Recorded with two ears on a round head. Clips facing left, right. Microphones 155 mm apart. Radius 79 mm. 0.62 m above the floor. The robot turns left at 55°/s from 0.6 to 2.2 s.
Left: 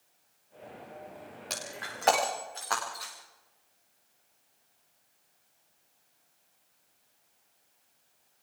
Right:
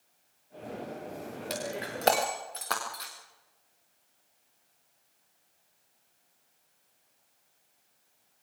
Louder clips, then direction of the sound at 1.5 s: Right 8 dB; 5° right (ahead or behind).